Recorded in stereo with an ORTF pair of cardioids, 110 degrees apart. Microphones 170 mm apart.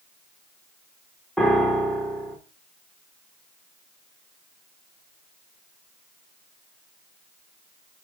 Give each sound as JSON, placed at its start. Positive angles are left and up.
{"t": 1.4, "sound": "a piano", "azimuth_deg": 5, "distance_m": 0.7}